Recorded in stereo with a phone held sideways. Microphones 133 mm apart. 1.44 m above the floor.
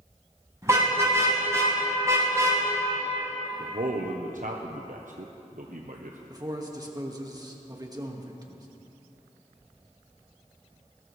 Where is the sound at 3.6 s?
75° right (ahead or behind), 1.0 m.